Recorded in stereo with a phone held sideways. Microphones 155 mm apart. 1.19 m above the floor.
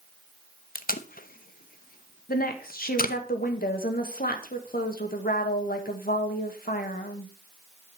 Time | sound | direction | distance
0.8 | tape being pulled | 65° left (ahead or behind) | 0.7 m
2.3 | a woman speaking | 70° left (ahead or behind) | 1.7 m